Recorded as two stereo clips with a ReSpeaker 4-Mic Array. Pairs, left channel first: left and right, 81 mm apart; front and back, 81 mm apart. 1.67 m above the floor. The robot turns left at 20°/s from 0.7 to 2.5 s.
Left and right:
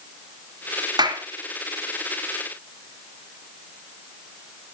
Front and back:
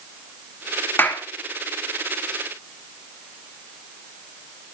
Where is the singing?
No singing in this recording.